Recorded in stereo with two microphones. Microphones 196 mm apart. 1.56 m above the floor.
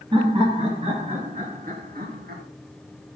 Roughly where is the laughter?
Right.